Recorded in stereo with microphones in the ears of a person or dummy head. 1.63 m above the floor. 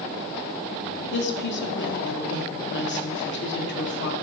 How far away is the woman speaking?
About 1.0 m.